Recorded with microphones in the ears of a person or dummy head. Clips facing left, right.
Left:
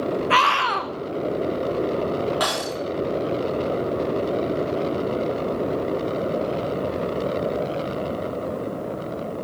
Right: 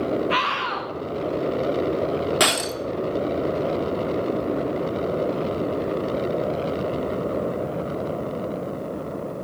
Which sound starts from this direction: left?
A scream, at 0.3 s.